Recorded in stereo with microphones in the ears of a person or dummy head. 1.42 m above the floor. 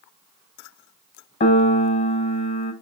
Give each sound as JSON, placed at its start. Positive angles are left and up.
{"t": 1.4, "sound": "a piano", "side_deg": 30, "distance_m": 0.5}